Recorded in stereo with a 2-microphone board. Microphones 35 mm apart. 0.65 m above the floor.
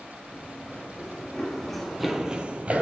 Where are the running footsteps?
20° left (ahead or behind), 3 m; by 2.8 s 35° right (ahead or behind), 0.9 m.